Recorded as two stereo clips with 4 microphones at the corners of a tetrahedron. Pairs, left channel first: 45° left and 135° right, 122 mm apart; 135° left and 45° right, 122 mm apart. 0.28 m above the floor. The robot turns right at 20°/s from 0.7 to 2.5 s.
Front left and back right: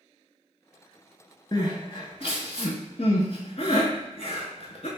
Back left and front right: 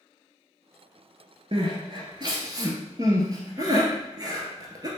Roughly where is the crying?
Ahead.